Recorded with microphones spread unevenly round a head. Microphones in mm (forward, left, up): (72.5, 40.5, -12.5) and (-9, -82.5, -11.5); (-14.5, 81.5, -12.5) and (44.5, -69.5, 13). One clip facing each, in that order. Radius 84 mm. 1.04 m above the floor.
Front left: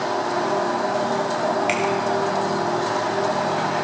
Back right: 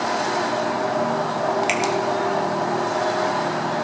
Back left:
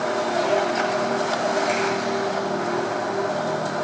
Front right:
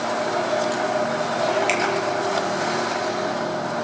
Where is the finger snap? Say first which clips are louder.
Even, even; 85° right, 2.5 m.